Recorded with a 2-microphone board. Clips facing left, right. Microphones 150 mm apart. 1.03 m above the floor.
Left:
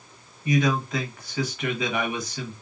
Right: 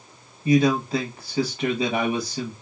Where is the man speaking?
30° right (ahead or behind), 1.0 m.